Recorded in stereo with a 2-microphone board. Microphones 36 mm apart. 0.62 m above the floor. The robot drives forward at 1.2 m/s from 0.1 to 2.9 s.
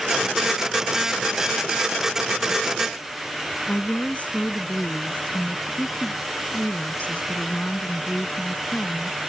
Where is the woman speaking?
40° left (ahead or behind).